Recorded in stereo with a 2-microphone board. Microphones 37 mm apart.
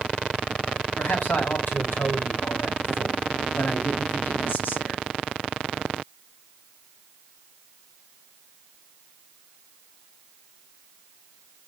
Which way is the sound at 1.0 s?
70° left (ahead or behind).